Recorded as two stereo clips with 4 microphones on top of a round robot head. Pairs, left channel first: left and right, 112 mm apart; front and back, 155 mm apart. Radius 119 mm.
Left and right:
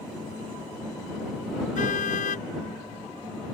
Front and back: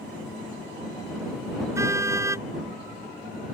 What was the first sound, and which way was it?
A car horn, 110° left.